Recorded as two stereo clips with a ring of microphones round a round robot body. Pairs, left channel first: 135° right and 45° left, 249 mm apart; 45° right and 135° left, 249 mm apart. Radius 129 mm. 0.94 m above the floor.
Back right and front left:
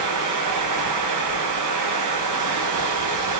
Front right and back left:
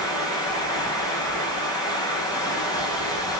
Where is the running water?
30° left, 5.5 m.